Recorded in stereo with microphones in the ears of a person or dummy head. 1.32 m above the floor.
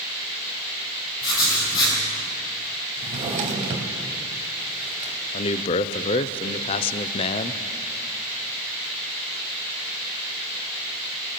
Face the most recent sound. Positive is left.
turn(degrees=30)  # may be behind; listen again after turning